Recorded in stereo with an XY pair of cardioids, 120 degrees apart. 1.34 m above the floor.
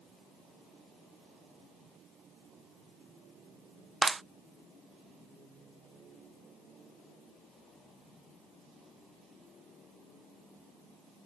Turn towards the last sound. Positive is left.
turn(degrees=-20)